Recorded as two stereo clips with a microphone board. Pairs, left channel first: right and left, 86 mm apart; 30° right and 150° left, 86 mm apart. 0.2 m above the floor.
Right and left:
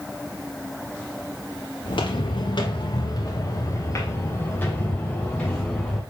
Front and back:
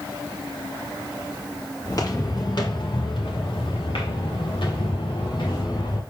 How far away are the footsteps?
About 3 m.